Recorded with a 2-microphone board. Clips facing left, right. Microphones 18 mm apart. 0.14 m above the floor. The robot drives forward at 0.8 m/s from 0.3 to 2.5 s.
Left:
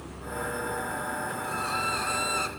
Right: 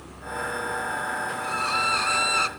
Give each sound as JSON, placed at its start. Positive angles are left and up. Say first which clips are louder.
{"t": 1.4, "sound": "a violin", "louder": "right 6 dB", "side_deg": -25, "distance_m": 1.1}